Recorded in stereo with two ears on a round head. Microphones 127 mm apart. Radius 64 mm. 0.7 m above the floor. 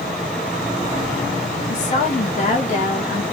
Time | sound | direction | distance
1.7 | a woman speaking | 50° left (ahead or behind) | 2.0 m